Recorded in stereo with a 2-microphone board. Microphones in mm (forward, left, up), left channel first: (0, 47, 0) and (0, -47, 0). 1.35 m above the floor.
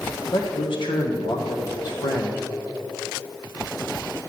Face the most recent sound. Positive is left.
turn(degrees=70)  # may be behind; listen again after turning